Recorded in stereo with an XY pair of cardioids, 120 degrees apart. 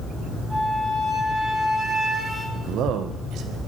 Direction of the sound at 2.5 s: 70° right.